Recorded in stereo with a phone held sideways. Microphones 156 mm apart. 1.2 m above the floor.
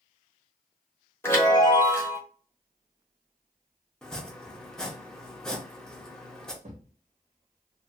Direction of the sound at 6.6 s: 60° right (ahead or behind).